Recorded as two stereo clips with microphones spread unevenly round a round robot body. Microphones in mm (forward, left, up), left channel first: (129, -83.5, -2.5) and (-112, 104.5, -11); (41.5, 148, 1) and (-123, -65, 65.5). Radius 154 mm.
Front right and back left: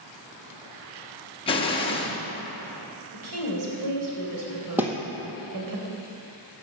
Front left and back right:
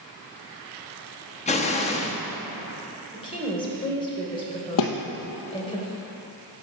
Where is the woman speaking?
120° left, 3 m.